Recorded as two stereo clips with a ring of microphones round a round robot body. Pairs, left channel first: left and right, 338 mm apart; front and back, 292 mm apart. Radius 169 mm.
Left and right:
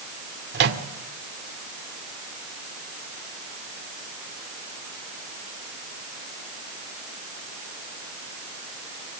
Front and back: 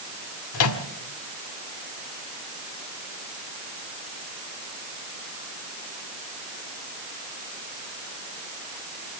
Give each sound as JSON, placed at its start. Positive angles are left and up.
{"t": 0.5, "sound": "a microwave", "azimuth_deg": -35, "distance_m": 1.7}